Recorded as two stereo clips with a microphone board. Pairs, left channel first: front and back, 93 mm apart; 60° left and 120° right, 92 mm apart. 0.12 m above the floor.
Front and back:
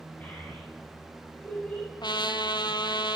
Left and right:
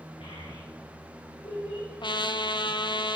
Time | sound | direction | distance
0.2 | a child speaking | 70° left | 7 m
2.0 | a trumpet | 35° left | 0.8 m